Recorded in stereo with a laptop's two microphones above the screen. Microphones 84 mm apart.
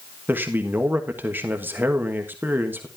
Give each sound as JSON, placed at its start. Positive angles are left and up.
{"t": 0.3, "sound": "a man speaking", "side_deg": -20, "distance_m": 1.4}